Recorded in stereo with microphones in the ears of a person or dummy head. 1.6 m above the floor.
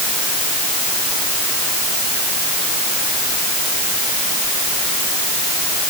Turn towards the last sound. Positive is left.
No sound to turn to.